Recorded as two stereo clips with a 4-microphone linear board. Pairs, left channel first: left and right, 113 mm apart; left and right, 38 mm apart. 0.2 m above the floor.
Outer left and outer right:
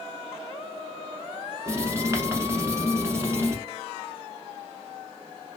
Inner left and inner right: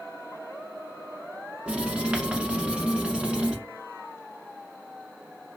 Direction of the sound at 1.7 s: 25° right (ahead or behind).